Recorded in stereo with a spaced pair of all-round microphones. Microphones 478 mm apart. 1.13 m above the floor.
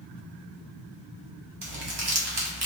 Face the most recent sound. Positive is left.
turn(degrees=-55)  # may be behind; listen again after turning